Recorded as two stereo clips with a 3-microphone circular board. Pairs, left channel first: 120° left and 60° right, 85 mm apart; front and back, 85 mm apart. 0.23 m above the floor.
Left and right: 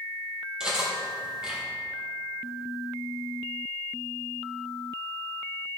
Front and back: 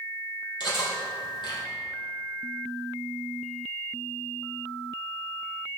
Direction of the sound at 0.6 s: 20° left.